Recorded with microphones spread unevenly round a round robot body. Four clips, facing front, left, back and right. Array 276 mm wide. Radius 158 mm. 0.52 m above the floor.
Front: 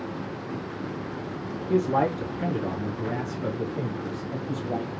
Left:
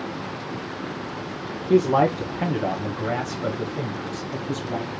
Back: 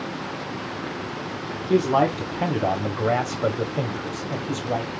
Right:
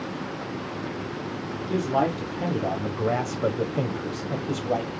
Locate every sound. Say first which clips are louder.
1.7 s a man speaking: left 6 dB, back 4 dB; 110° left, 1.1 m; by 5.0 s 145° right, 1.6 m